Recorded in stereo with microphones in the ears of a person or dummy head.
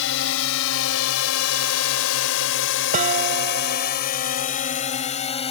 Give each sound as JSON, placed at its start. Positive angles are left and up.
{"t": 0.0, "sound": "a drone", "side_deg": 65}
{"t": 2.9, "sound": "dishes clattering", "side_deg": -45}